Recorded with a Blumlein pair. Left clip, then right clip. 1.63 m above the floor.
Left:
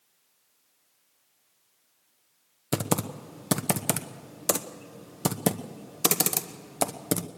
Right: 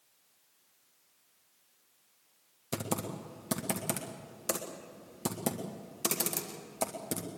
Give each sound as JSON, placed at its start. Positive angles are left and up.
{"t": 2.7, "sound": "typing on a keyboard", "azimuth_deg": 25, "distance_m": 1.0}